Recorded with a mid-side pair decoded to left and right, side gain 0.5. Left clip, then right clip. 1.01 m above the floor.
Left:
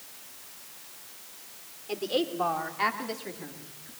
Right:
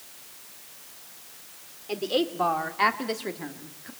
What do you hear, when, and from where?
1.9 s a woman speaking: 15° right, 3.5 m; by 3.9 s 60° right, 2.5 m